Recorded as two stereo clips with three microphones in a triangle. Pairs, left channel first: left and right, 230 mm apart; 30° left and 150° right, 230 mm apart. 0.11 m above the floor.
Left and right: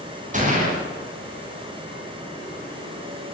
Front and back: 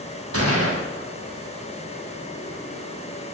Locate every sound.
0.3 s a gunshot: 145° right, 9.5 m